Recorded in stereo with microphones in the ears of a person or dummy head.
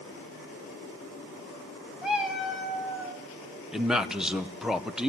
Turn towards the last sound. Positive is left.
turn(degrees=5)  # may be behind; listen again after turning